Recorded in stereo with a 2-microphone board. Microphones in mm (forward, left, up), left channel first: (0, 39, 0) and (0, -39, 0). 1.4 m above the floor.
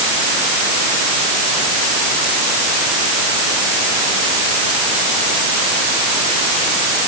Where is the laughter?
No laughter in this recording.